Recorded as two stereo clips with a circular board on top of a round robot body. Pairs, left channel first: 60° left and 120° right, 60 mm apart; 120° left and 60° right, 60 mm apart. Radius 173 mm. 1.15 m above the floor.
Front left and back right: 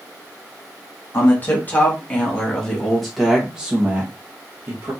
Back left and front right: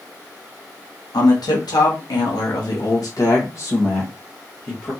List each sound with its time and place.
1.1 s a man speaking: 115° left, 1.8 m; by 4.9 s 170° right, 1.5 m